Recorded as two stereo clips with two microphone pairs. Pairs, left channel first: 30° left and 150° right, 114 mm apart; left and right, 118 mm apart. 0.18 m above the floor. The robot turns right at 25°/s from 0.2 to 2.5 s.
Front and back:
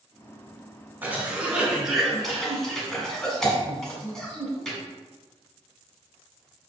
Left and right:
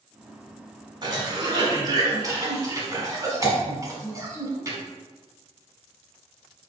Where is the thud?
No thud in this recording.